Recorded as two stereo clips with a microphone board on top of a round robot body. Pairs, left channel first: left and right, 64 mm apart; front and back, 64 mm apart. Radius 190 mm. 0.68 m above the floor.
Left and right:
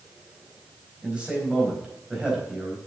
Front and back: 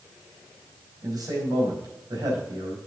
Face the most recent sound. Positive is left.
turn(degrees=-165)